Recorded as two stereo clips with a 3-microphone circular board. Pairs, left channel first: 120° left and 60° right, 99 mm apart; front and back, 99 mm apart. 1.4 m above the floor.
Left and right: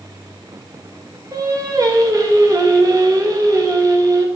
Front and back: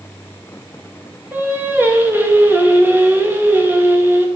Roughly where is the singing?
Right.